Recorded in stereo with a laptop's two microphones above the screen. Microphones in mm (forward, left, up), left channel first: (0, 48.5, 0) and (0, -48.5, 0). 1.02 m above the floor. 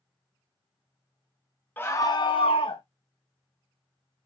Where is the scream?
20° left (ahead or behind), 0.7 m; by 2.8 s 60° left (ahead or behind), 0.7 m.